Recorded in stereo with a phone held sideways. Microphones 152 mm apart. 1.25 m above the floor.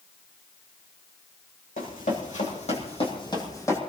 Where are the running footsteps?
65° left (ahead or behind), 4 m; by 3.8 s 15° left (ahead or behind), 3 m.